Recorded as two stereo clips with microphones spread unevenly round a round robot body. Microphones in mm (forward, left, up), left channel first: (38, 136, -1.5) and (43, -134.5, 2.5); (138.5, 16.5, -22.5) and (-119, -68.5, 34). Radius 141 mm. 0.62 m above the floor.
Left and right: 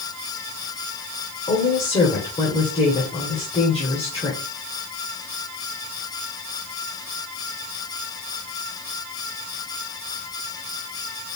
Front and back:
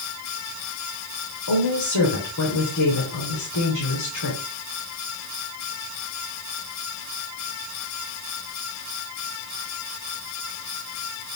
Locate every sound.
1.5 s a woman speaking: 20° left, 2.5 m